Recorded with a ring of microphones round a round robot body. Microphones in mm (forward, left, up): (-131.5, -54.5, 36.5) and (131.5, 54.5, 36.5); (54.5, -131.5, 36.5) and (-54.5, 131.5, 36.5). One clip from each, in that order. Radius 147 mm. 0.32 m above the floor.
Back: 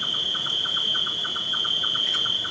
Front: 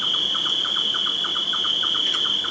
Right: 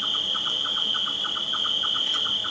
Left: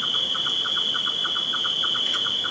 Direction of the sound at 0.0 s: 55° left.